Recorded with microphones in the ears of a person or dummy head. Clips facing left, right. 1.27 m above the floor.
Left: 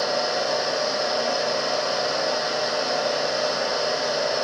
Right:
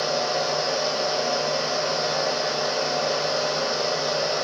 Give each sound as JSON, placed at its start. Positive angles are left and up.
{"t": 0.0, "sound": "a fan", "side_deg": -70, "distance_m": 0.9}